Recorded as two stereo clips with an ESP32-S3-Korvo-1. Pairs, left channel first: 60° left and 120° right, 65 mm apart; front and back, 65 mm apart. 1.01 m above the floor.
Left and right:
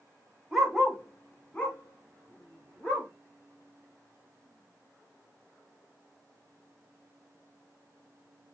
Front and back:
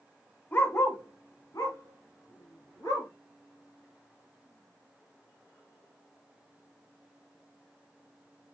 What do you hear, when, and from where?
0.5 s a dog barking: 40° right, 0.9 m; by 3.1 s 5° right, 4 m